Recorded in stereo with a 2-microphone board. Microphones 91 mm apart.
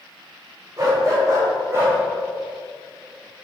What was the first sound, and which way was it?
A dog barking, 40° right (ahead or behind).